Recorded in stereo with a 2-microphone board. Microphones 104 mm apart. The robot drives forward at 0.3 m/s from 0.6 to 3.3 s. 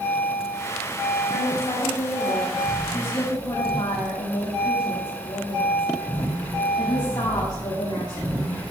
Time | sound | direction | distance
1.3 | a woman speaking | 50° left (ahead or behind) | 4.5 m